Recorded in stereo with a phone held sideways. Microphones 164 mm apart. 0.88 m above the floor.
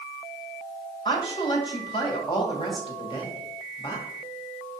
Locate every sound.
1.1 s a woman speaking: 30° left (ahead or behind), 1.9 m